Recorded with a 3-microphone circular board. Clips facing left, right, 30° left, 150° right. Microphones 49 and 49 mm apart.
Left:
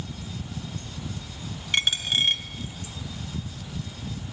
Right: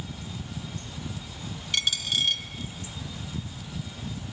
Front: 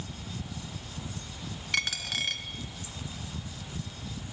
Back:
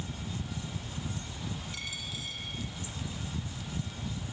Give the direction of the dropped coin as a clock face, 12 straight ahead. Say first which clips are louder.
Left 3 dB, front 9 dB; 11 o'clock.